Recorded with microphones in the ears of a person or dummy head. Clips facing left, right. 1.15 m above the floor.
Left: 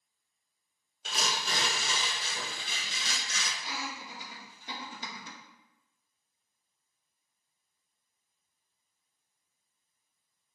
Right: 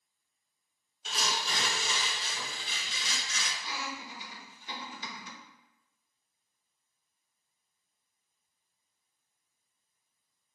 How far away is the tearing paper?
About 1.0 m.